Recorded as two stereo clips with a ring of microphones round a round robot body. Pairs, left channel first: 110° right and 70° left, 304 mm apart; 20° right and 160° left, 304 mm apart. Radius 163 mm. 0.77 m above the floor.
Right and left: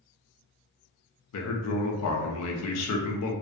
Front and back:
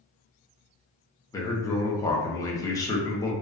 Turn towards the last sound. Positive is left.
turn(degrees=-100)